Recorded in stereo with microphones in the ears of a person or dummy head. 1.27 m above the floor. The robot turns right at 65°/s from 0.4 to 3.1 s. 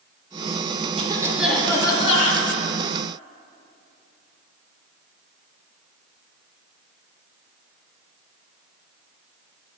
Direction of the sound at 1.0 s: 40° right.